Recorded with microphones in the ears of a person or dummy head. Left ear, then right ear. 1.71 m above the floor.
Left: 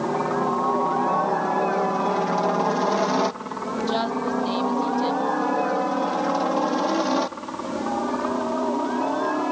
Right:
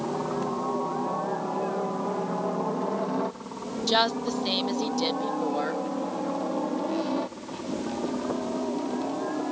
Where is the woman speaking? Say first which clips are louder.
Right 3 dB; 35° right (ahead or behind).